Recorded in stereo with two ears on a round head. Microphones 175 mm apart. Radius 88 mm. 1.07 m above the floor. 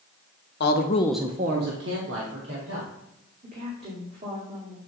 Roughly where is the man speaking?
Left.